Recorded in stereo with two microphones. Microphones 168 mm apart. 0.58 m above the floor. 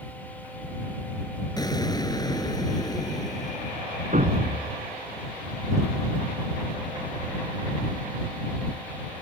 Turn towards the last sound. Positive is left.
turn(degrees=-55)  # may be behind; listen again after turning